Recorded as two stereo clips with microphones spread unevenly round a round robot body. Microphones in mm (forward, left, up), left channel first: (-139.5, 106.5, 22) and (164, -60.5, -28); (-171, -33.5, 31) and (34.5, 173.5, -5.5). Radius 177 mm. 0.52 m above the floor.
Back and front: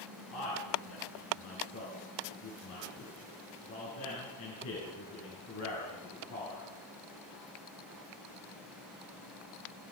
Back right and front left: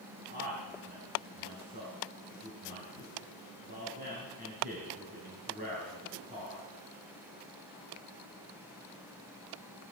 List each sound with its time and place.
0.3 s a man speaking: 105° left, 6 m